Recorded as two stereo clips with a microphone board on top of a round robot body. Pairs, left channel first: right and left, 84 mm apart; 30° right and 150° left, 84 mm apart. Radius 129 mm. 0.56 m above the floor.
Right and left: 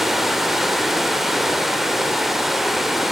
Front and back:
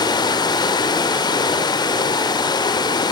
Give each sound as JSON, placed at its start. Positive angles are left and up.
{"t": 0.0, "sound": "running water", "azimuth_deg": 5, "distance_m": 2.0}